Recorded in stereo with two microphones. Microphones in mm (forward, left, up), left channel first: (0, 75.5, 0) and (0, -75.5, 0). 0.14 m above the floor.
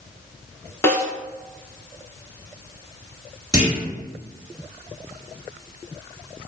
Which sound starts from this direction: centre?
A snare drum, at 0.8 s.